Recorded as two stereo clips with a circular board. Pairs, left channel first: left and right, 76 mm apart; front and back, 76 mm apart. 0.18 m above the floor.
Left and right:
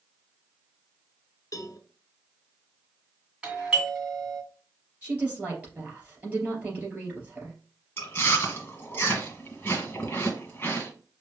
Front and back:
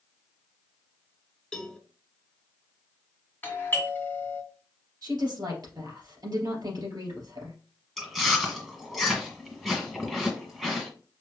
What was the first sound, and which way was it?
A cowbell, 75° left.